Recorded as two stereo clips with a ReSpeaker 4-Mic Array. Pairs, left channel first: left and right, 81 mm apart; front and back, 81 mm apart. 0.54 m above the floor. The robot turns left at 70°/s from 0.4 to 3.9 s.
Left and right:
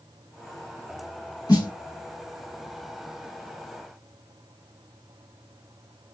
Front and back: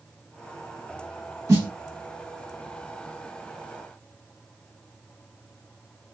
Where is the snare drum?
130° left, 2.5 m; by 1.7 s 115° left, 2.5 m.